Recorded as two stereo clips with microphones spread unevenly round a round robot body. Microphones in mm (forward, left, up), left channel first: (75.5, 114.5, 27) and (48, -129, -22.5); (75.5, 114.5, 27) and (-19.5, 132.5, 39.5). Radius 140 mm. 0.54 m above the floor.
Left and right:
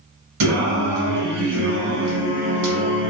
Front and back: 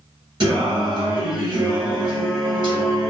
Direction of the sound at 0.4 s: 125° right.